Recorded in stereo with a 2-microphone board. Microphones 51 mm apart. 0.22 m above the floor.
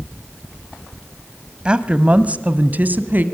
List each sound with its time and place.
1.6 s a woman speaking: 20° right (ahead or behind), 1.3 m; by 3.2 s 40° right (ahead or behind), 1.9 m